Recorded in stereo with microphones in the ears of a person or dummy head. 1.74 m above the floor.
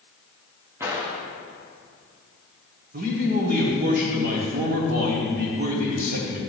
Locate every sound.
0.8 s a gunshot: 15° right (ahead or behind), 1.5 m
2.9 s a man speaking: 50° right (ahead or behind), 1.8 m